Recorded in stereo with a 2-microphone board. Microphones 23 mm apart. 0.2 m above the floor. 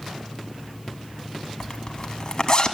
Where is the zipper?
40° left (ahead or behind), 0.8 m.